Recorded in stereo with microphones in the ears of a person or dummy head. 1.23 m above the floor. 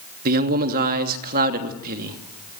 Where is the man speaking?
50° right (ahead or behind), 2.5 m.